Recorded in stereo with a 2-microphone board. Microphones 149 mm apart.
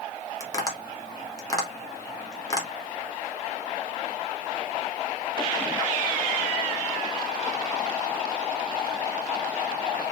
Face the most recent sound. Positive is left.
turn(degrees=25)  # may be behind; listen again after turning